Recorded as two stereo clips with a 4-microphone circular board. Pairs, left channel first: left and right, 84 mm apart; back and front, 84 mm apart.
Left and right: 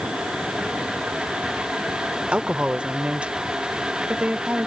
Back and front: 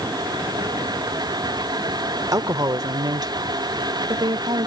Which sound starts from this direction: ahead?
A woman speaking, at 2.3 s.